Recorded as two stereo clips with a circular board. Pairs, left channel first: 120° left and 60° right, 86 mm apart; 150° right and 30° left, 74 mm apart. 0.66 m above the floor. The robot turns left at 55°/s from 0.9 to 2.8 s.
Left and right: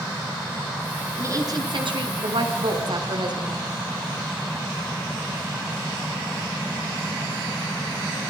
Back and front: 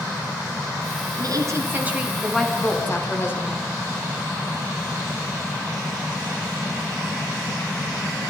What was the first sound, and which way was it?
A woman speaking, straight ahead.